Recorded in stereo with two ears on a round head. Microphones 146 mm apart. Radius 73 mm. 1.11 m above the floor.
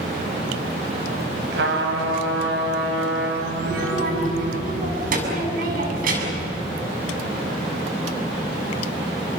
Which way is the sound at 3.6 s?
60° right (ahead or behind).